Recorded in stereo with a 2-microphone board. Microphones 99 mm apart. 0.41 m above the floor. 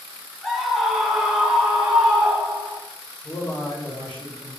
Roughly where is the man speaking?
Left.